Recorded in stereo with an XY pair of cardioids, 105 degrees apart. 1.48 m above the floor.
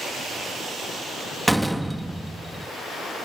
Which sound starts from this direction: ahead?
A door slam, at 1.5 s.